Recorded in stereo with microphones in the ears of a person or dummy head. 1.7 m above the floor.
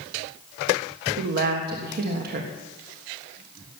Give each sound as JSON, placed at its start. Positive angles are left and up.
{"t": 1.2, "sound": "a woman speaking", "side_deg": -50, "distance_m": 1.5}